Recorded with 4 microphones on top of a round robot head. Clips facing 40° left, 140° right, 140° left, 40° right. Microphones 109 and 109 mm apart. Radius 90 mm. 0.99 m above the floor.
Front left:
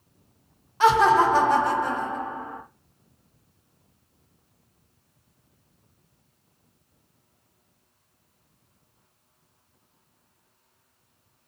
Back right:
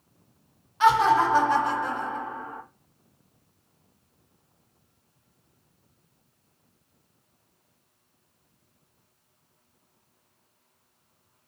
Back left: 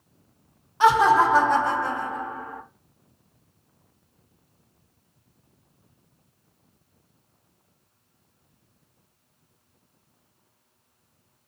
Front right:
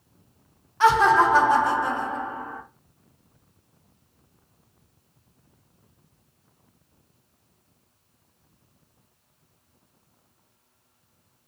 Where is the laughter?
75° left, 0.9 m; by 2.6 s straight ahead, 1.1 m.